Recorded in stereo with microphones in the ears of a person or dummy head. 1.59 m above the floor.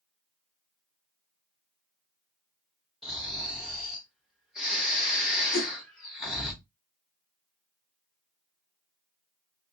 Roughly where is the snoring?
Centre.